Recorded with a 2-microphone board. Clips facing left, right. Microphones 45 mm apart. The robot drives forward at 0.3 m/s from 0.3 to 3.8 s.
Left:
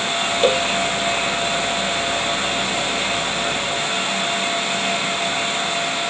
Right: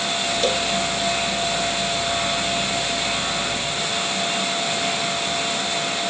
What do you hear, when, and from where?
0.4 s a cowbell: 30° left (ahead or behind)